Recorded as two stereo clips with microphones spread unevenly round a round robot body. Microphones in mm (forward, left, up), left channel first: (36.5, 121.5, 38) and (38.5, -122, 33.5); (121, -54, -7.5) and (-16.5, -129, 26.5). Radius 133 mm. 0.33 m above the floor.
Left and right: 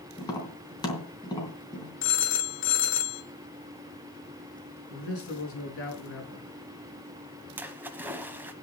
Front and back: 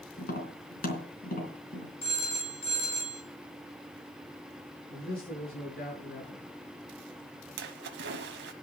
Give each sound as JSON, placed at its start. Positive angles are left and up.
{"t": 0.2, "sound": "tapping", "azimuth_deg": 15, "distance_m": 3.5}
{"t": 2.0, "sound": "a phone ringing", "azimuth_deg": 65, "distance_m": 1.5}
{"t": 4.9, "sound": "a man speaking", "azimuth_deg": 60, "distance_m": 5.0}
{"t": 7.6, "sound": "a splash", "azimuth_deg": -175, "distance_m": 0.9}